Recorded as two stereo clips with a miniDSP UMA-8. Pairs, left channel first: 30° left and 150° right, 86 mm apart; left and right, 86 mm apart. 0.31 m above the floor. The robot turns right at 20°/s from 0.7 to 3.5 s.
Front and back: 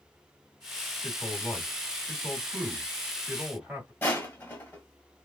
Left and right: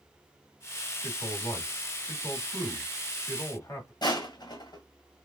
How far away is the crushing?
About 2 m.